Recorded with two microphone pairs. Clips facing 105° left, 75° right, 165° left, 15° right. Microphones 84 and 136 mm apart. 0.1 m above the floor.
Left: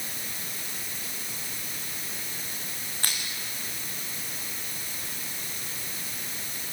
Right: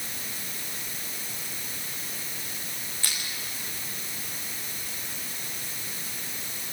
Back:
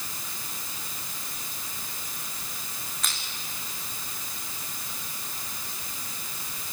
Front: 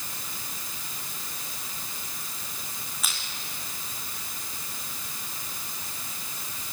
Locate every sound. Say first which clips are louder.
3.0 s crushing: left 2 dB, even; 70° left, 6 m